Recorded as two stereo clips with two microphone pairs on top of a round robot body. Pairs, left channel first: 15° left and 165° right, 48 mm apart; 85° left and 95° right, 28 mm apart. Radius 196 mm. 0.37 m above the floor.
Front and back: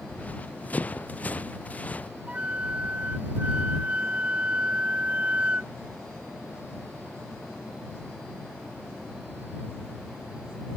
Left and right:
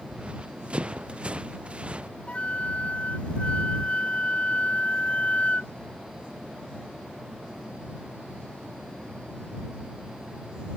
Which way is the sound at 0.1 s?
45° right.